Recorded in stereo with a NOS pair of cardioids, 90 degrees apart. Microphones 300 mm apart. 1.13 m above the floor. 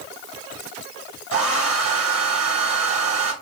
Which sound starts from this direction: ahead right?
A hair dryer, at 1.3 s.